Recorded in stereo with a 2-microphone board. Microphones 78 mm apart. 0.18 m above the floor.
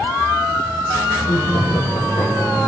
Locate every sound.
1.2 s laughter: 65° left (ahead or behind), 8 m; by 2.7 s 50° left (ahead or behind), 8 m